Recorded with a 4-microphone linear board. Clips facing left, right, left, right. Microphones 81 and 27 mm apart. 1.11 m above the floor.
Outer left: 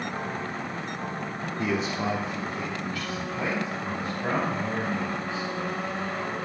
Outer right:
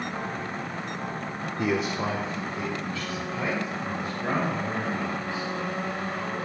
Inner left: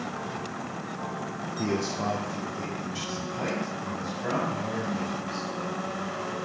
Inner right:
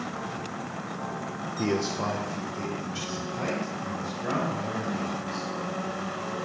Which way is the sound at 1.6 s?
20° right (ahead or behind).